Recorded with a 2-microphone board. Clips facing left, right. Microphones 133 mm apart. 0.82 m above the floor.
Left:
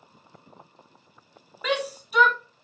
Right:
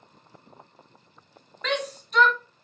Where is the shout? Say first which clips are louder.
Left 2 dB; 10° left (ahead or behind), 0.5 m.